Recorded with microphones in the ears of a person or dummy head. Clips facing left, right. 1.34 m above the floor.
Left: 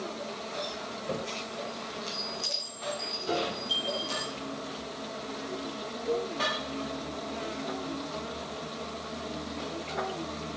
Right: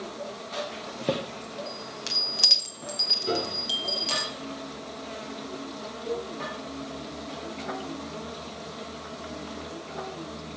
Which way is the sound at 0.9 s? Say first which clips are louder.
Right 9 dB; 75° right (ahead or behind).